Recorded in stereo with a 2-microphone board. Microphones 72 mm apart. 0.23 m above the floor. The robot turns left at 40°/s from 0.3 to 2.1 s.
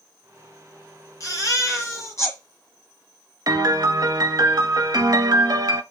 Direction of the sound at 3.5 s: 55° right (ahead or behind).